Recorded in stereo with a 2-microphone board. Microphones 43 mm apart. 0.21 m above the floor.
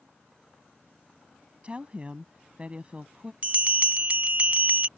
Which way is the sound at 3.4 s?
30° right (ahead or behind).